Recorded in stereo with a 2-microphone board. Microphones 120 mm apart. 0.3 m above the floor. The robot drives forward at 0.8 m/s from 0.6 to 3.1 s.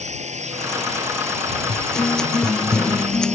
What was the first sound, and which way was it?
A drone, 80° right.